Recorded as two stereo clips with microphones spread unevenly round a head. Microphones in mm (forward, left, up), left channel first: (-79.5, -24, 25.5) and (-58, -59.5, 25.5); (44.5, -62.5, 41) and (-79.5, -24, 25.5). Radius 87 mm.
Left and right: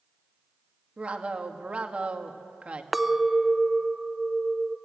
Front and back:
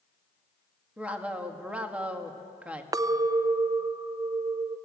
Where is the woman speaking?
115° right, 2 m.